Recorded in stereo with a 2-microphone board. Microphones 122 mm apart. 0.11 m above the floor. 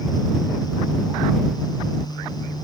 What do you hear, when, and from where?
Only background noise.